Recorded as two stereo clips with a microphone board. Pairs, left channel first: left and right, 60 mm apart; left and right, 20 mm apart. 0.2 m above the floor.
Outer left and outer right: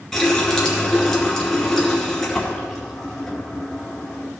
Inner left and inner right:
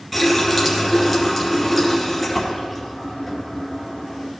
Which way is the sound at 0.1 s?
5° left (ahead or behind).